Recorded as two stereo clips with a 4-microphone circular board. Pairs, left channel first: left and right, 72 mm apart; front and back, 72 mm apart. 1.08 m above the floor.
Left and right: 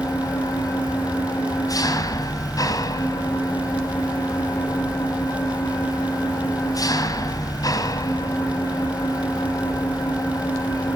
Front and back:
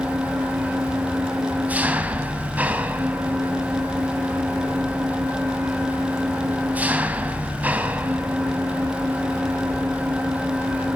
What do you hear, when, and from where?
0.0 s an engine running: 115° left, 1.8 m